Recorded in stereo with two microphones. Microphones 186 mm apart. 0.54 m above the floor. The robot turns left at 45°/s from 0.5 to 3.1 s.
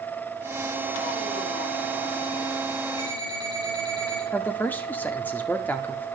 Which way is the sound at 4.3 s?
10° left (ahead or behind).